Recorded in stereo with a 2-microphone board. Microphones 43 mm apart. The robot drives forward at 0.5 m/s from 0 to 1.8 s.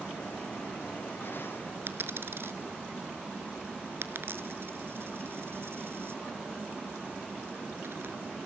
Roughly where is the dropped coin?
Right.